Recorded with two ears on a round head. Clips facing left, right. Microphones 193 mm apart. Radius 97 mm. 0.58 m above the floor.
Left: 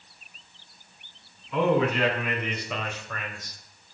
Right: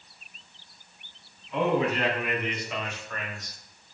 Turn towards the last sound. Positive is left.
turn(degrees=65)  # may be behind; listen again after turning